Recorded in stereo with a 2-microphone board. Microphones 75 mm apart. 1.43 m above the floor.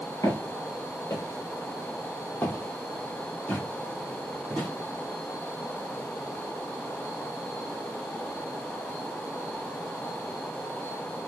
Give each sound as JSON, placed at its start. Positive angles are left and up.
{"t": 0.2, "sound": "footsteps", "side_deg": 45, "distance_m": 2.0}